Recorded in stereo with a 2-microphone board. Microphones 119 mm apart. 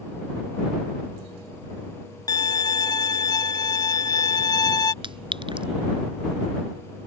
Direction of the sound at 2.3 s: 30° left (ahead or behind).